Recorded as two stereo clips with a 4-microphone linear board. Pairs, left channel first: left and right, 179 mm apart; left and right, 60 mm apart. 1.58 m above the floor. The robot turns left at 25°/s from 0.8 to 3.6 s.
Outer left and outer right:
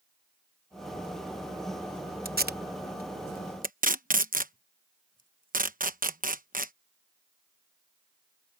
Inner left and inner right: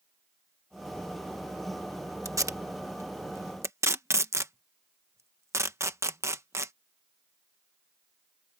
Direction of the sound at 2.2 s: 60° right (ahead or behind).